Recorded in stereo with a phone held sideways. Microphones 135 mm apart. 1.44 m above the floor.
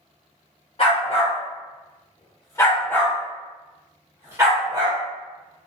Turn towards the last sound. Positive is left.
turn(degrees=-35)  # may be behind; listen again after turning